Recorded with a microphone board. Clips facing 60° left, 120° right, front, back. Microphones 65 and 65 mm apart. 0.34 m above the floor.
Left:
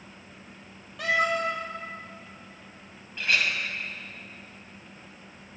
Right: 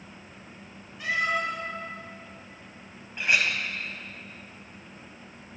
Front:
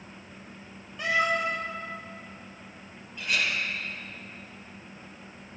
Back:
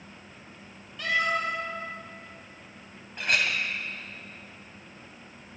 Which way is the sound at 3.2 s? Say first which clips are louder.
Right 1 dB, back 2 dB; 175° left.